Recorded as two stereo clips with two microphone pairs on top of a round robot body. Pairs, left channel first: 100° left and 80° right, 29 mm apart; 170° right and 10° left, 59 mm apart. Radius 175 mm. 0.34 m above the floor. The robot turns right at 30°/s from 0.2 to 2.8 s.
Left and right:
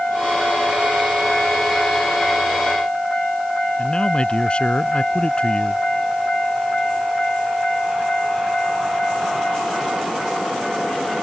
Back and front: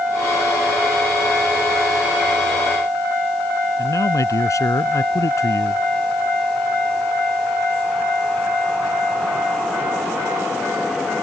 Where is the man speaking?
155° left.